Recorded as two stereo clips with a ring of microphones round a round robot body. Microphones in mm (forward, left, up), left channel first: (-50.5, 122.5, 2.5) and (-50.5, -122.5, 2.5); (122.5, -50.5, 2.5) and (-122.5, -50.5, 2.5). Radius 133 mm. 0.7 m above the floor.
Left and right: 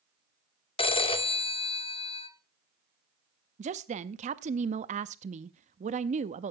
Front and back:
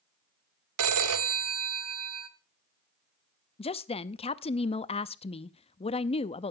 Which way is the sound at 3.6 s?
50° right.